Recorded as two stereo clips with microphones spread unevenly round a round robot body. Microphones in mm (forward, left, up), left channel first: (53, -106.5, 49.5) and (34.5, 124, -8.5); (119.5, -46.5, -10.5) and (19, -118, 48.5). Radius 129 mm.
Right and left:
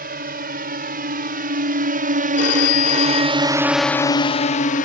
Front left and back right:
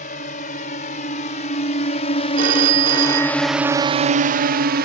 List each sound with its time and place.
0.0 s a drone: 45° left; by 4.8 s 150° right
2.4 s a phone ringing: 145° right